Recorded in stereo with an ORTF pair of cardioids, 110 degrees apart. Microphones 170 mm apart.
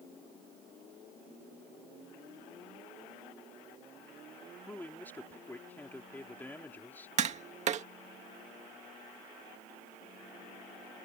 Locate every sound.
4.7 s a man speaking: 10° left
7.2 s tapping: 45° right